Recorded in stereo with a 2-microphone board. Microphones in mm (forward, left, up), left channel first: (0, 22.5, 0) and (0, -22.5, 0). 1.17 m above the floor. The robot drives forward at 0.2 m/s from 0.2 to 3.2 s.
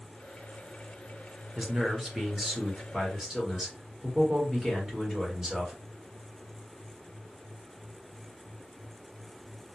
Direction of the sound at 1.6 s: 10° right (ahead or behind).